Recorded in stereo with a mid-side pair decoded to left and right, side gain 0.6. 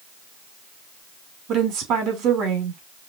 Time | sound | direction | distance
1.5 | a woman speaking | 65° right | 2.5 m